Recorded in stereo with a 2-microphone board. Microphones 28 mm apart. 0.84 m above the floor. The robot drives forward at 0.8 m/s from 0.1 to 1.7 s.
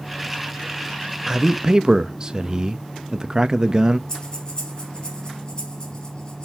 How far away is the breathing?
About 5.5 m.